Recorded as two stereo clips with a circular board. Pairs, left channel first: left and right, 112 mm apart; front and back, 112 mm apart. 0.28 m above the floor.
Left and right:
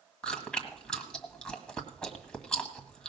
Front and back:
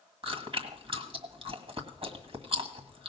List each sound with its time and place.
0.2 s chewing: 170° left, 1.7 m